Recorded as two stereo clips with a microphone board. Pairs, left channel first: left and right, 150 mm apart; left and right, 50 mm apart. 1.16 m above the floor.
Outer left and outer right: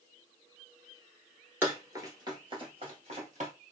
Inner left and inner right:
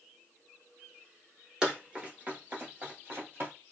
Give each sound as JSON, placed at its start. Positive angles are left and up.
{"t": 1.6, "sound": "running footsteps", "side_deg": -15, "distance_m": 1.2}